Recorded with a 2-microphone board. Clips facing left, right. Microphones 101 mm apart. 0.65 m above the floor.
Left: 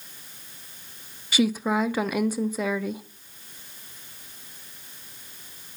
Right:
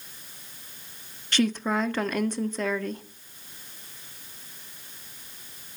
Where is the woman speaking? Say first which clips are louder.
Left 2 dB; 5° left (ahead or behind), 0.5 m.